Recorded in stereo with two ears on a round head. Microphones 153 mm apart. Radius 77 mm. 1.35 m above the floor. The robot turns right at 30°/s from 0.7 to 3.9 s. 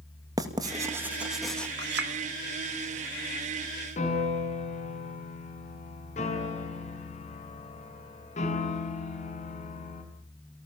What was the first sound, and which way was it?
Writing, 20° right (ahead or behind).